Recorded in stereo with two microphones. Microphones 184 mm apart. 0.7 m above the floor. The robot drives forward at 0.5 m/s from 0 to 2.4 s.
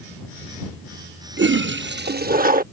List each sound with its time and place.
1.4 s a toilet flushing: 75° right (ahead or behind); by 2.6 s 50° right (ahead or behind)